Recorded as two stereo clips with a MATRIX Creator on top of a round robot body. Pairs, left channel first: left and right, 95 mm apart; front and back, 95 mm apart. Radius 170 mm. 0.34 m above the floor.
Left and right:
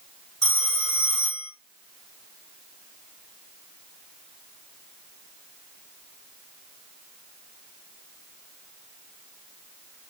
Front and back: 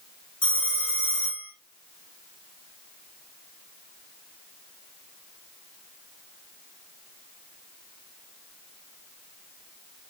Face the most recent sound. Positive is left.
turn(degrees=5)